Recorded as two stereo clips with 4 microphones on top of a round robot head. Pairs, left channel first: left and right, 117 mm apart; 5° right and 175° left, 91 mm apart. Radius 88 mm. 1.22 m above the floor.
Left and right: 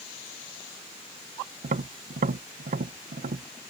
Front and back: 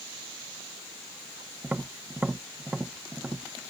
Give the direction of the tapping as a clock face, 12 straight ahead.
3 o'clock.